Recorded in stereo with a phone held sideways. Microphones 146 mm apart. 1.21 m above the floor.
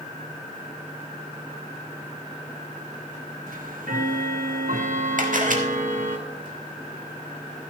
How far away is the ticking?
About 1.1 m.